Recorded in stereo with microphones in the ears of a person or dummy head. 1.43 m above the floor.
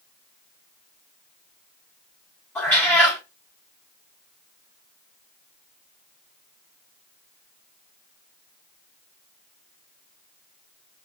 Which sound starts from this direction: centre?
A cat meowing, at 2.5 s.